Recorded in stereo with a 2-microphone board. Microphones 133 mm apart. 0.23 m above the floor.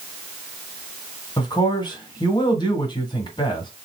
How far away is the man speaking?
About 1.5 m.